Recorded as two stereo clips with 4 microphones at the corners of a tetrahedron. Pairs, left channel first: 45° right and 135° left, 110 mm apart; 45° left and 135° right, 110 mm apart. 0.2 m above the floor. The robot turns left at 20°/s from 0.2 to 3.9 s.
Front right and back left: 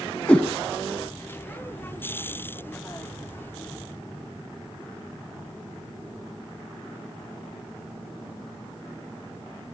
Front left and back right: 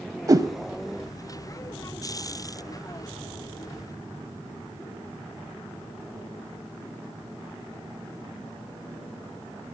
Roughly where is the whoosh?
Right.